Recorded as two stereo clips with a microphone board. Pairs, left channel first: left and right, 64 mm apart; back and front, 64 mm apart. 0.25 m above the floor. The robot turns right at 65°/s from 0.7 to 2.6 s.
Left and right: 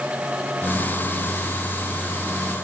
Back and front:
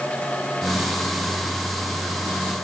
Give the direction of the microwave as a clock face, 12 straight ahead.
I don't hear a microwave.